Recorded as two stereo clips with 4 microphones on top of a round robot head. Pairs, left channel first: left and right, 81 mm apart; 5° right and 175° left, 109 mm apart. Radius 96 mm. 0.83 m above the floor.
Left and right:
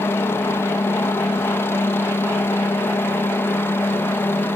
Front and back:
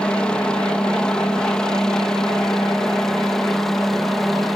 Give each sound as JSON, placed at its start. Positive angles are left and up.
{"t": 0.0, "sound": "a helicopter", "azimuth_deg": 70}